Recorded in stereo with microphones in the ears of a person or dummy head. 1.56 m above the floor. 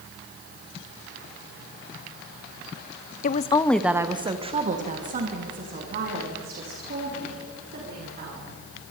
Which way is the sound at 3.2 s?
55° left (ahead or behind).